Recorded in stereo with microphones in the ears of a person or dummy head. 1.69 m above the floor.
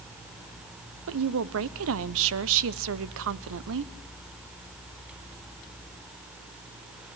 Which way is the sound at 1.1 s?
75° right (ahead or behind).